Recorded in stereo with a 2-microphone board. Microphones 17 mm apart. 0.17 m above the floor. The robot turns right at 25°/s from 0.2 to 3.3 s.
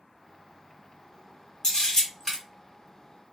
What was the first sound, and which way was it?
A camera shutter, 30° left (ahead or behind).